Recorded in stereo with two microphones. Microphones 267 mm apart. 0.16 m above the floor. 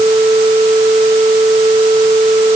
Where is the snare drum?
I don't hear a snare drum.